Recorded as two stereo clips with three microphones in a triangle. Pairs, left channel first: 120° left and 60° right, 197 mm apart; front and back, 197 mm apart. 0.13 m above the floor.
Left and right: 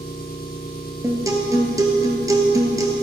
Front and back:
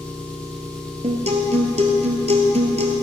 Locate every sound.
0.0 s an engine running: 85° left, 2.5 m
1.0 s a guitar: 130° right, 1.5 m